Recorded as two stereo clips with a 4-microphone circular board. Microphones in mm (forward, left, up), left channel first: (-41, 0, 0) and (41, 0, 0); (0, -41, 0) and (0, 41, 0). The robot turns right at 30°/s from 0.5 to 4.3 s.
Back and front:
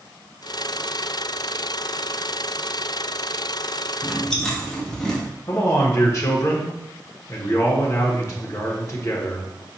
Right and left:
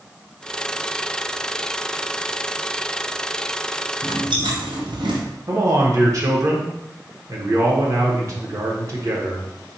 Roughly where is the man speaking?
Behind left.